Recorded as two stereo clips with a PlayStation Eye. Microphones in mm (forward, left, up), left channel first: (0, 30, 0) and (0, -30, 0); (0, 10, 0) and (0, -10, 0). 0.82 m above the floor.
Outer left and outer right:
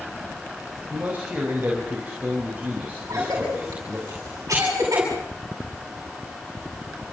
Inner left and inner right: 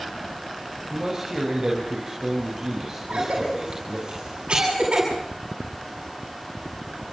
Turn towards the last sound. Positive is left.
turn(degrees=-65)  # may be behind; listen again after turning